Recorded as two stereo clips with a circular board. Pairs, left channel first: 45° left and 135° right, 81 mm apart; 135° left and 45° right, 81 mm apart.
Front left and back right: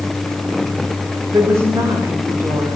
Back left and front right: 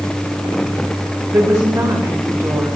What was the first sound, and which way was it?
A woman speaking, 95° right.